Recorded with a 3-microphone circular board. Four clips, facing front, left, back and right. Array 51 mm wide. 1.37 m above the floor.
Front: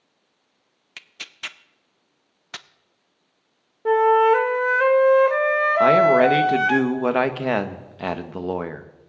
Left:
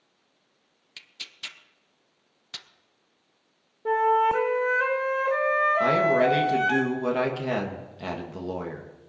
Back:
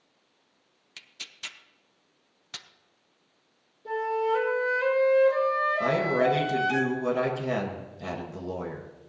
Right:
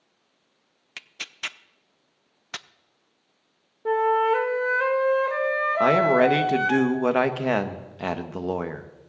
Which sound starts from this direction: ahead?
A flute, at 3.9 s.